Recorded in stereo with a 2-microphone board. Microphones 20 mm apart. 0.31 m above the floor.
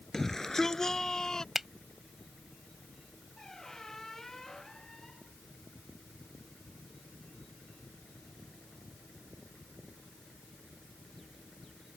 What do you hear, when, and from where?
0.1 s a shout: 25° left (ahead or behind); by 1.4 s 35° left (ahead or behind)
1.6 s a finger snap: 15° right (ahead or behind)
3.4 s a squeak: 25° left (ahead or behind)